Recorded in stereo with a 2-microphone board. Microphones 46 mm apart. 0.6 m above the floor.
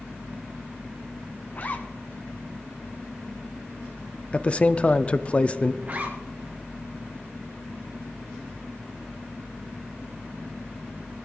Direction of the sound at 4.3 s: 25° left (ahead or behind).